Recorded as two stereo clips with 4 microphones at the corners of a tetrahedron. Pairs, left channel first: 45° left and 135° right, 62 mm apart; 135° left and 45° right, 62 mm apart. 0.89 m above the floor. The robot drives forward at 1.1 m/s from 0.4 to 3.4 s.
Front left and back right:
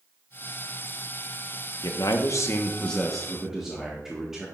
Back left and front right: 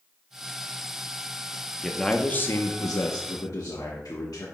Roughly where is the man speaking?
Ahead left.